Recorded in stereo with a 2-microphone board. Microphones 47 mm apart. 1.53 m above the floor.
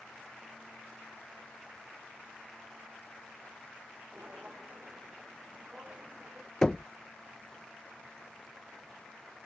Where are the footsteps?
35° right (ahead or behind); by 6.5 s 25° right (ahead or behind).